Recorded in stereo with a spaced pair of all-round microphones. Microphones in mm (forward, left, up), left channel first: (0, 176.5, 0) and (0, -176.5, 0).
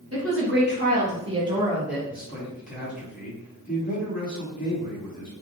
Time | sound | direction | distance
0.1 | a woman speaking | 40° right (ahead or behind) | 2.5 m
2.1 | a man speaking | 20° left (ahead or behind) | 3.5 m